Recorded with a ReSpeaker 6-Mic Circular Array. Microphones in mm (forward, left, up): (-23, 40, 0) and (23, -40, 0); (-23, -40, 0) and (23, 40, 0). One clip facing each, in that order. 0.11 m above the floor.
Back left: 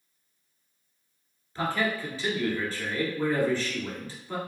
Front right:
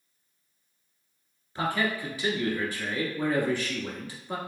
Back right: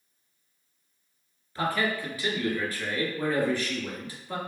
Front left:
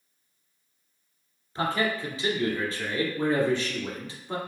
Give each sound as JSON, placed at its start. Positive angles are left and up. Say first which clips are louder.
{"t": 1.6, "sound": "a man speaking", "louder": "even, front left 1 dB", "azimuth_deg": 5, "distance_m": 1.4}